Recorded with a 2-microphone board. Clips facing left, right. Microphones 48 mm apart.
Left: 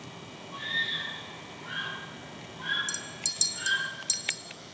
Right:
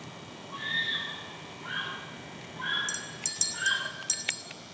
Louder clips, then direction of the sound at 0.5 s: Even; 10° right (ahead or behind).